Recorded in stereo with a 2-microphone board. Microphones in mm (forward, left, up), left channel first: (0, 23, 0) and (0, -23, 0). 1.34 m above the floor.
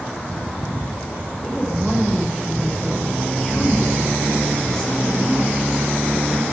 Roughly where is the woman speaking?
Centre.